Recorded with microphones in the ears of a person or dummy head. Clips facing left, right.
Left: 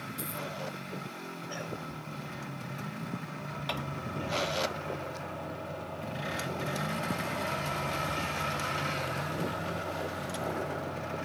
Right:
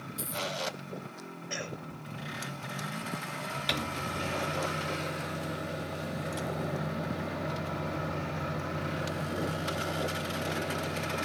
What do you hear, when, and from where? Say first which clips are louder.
0.2 s a dropped coin: right 3 dB; 5° right (ahead or behind)
1.5 s a cough: right 1 dB; 30° right (ahead or behind)
3.7 s a microwave: right 2 dB; 25° right (ahead or behind)